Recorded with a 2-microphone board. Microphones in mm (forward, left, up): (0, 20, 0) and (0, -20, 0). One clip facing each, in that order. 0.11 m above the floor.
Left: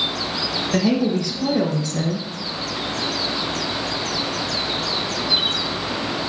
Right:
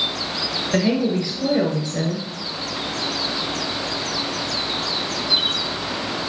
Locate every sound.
0.7 s a woman speaking: 20° right (ahead or behind), 1.2 m